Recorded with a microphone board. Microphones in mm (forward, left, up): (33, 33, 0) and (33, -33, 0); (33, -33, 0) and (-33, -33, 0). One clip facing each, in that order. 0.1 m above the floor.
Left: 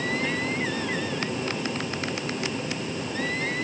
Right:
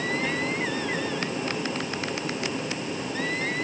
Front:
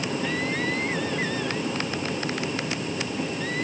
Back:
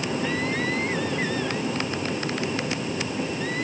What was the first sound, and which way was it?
Only background noise.